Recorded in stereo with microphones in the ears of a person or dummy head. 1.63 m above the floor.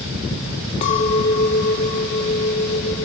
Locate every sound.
0.8 s a clink: 40° left (ahead or behind), 2 m